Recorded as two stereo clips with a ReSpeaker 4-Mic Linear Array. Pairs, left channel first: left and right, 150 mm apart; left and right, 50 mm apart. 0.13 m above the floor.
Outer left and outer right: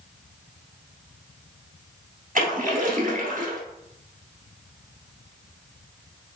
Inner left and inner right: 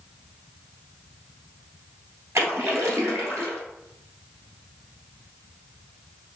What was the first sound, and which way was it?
A splash, 60° right (ahead or behind).